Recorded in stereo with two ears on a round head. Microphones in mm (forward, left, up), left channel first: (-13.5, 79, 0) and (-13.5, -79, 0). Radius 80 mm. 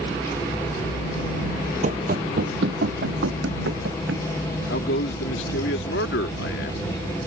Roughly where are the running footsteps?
Right.